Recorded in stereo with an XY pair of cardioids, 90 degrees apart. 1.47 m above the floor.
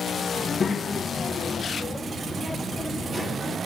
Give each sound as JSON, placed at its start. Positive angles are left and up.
{"t": 0.4, "sound": "a child speaking", "azimuth_deg": 45, "distance_m": 1.4}